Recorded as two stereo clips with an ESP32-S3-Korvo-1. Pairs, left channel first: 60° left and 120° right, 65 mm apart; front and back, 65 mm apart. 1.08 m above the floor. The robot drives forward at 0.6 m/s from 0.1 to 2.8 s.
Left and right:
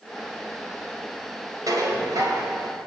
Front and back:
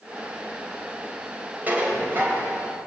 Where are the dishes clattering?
120° right, 4 m; by 2.5 s 125° right, 4.5 m.